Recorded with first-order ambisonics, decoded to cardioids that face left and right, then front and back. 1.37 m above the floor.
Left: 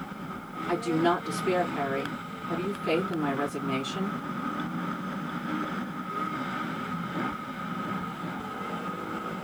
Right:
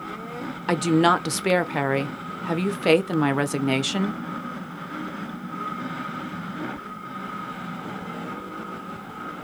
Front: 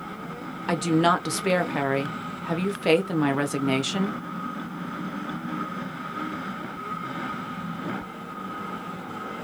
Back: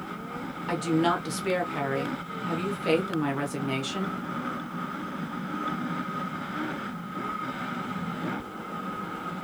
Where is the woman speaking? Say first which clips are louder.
Right 6 dB, front 4 dB; 70° right, 0.6 m.